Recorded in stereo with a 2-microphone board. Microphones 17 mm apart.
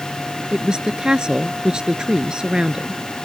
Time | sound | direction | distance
0.5 | a woman speaking | 50° right (ahead or behind) | ?